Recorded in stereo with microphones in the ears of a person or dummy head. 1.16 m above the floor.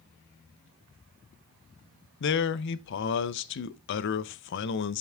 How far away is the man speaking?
About 0.8 m.